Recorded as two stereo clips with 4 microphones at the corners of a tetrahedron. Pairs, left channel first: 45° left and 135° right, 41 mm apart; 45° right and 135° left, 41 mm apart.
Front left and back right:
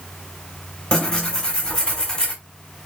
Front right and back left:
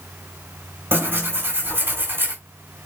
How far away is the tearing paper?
About 4.5 m.